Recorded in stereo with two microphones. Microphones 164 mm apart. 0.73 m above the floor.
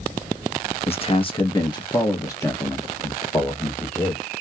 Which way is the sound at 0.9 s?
35° left (ahead or behind).